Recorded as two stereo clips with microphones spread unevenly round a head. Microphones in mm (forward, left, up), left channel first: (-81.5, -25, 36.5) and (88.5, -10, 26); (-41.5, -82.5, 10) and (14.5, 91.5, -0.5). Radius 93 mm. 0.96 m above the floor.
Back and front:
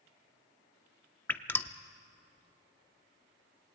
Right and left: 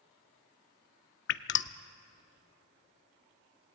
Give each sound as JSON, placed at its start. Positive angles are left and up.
{"t": 1.3, "sound": "dripping", "azimuth_deg": -100, "distance_m": 0.7}